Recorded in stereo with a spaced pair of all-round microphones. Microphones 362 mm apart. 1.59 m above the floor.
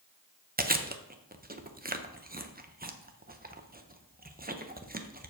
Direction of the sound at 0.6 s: 25° right (ahead or behind).